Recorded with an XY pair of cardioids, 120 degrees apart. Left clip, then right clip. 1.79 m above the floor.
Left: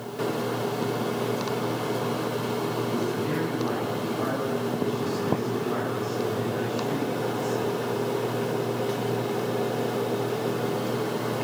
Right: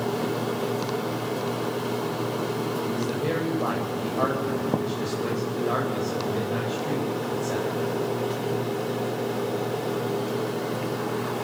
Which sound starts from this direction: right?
A man speaking, at 2.8 s.